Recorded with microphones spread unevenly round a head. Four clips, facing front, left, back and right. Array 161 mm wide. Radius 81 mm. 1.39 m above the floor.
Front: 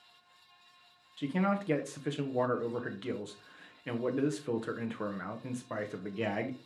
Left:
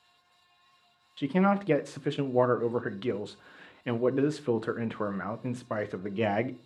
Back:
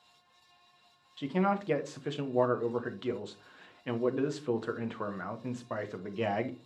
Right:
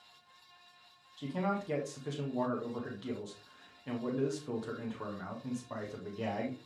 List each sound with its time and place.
1.2 s a man speaking: 75° left, 0.8 m